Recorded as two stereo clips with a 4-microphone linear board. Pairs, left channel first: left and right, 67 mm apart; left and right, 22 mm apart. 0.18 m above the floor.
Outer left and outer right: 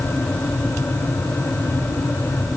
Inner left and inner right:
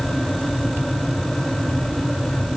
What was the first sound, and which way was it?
Only background noise.